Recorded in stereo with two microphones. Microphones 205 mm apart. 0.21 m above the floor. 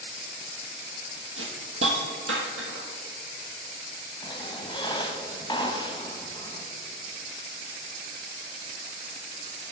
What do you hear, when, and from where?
1.4 s a hiss: 85° right, 1.0 m
4.2 s a squeak: 20° left (ahead or behind), 0.7 m